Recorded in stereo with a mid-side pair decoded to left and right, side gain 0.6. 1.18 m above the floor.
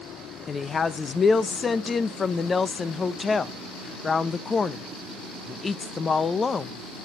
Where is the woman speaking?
25° left, 0.7 m.